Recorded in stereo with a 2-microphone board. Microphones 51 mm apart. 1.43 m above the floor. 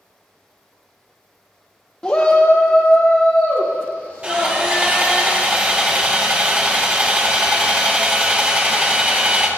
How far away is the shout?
About 0.6 m.